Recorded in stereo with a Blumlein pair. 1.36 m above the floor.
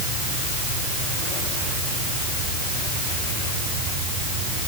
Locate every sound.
Only background noise.